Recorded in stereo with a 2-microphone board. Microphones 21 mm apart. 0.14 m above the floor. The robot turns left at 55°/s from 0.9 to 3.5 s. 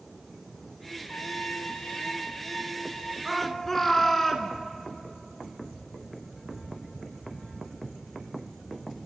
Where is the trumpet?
120° left, 4 m; by 3.1 s 5° left, 4 m.